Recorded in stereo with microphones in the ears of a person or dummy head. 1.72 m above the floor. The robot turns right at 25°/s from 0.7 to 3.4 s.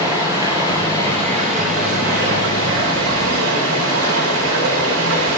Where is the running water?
165° right, 4 m; by 5.4 s 95° right, 4 m.